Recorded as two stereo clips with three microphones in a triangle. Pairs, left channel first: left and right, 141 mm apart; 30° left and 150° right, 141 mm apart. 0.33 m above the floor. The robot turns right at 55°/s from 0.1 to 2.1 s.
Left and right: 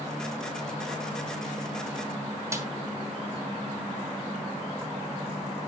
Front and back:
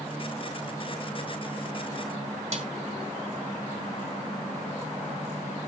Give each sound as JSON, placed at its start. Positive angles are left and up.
{"t": 2.5, "sound": "a snare drum", "azimuth_deg": -155, "distance_m": 2.5}